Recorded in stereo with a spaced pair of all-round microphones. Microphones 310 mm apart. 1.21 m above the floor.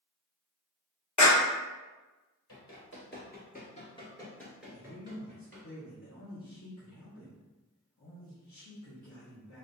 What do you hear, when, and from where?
1.2 s a clap: 70° left (ahead or behind), 0.9 m
2.5 s running footsteps: 45° left (ahead or behind), 1.6 m; by 5.7 s 30° right (ahead or behind), 1.3 m
4.7 s a man speaking: 65° left (ahead or behind), 0.9 m